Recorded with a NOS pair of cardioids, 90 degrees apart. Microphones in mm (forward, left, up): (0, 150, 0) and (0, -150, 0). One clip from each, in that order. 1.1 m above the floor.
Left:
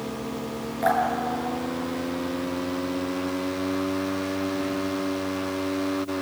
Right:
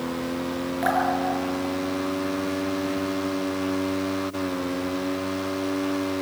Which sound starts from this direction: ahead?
Dripping, at 0.8 s.